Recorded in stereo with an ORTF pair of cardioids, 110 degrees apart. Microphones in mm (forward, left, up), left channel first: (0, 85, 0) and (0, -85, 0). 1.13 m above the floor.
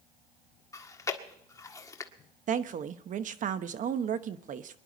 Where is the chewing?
20° left, 1.5 m.